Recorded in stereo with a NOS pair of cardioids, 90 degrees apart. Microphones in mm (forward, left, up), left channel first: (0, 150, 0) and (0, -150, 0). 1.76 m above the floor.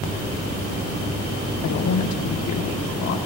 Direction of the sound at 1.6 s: 65° left.